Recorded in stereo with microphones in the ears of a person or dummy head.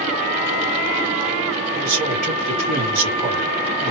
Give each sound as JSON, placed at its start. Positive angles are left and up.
{"t": 1.7, "sound": "a man speaking", "side_deg": -45, "distance_m": 1.7}